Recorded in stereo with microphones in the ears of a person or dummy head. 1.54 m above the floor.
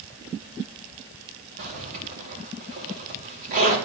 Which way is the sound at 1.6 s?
50° right (ahead or behind).